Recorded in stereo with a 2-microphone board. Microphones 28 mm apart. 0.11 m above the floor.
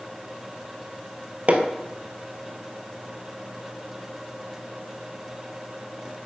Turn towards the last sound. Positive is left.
turn(degrees=-50)  # may be behind; listen again after turning